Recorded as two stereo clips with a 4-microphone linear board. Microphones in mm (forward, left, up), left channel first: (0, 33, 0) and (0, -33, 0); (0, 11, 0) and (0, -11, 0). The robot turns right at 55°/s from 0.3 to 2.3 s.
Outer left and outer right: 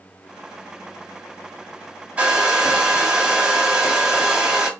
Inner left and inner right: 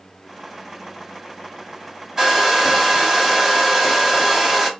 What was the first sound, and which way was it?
A hair dryer, 20° right (ahead or behind).